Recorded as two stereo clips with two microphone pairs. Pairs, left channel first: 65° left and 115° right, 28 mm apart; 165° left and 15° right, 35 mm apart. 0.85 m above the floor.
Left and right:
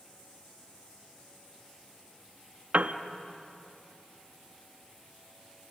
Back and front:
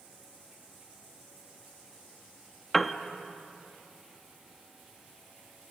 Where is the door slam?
I don't hear a door slam.